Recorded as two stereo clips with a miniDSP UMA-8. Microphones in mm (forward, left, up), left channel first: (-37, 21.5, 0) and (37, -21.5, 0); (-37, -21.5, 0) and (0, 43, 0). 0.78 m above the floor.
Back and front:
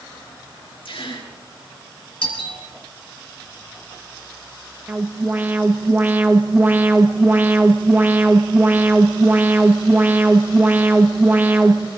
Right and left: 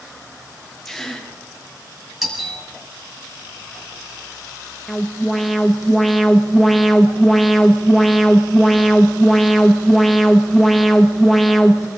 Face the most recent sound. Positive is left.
turn(degrees=-30)